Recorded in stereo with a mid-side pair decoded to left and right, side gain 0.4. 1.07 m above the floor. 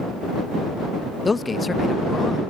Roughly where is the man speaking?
Ahead left.